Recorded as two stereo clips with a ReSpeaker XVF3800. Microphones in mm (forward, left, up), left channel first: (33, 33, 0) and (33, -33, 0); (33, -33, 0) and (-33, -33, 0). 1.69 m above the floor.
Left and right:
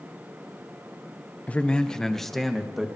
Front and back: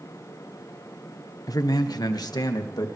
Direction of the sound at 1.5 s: 20° left.